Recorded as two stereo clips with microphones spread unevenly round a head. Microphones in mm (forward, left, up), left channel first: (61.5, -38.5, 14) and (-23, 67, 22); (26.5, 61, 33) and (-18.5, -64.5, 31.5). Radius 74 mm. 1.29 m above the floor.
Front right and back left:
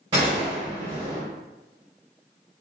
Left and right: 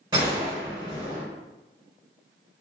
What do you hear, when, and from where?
0.1 s a gunshot: 170° right, 1.9 m